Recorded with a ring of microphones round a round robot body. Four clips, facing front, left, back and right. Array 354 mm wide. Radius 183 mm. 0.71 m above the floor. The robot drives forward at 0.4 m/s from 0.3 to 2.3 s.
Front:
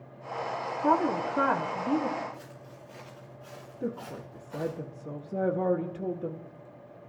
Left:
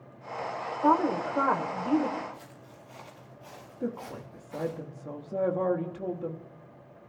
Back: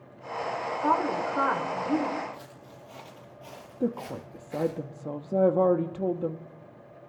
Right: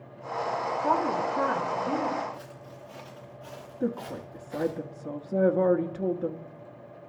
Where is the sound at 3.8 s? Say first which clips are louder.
Right 4 dB, back 5 dB; 155° right, 1.1 m.